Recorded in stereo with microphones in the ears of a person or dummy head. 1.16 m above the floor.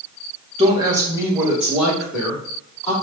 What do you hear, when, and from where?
0.6 s a woman speaking: 30° right (ahead or behind), 1.1 m; by 2.9 s 5° left (ahead or behind), 2 m